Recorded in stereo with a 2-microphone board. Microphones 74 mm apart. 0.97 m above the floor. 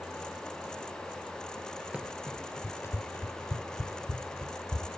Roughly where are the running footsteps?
Centre.